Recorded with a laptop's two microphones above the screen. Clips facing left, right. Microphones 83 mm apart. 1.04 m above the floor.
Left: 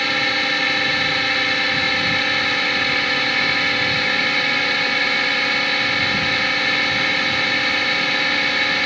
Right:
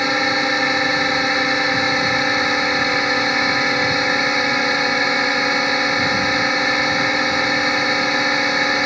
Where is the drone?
20° right (ahead or behind).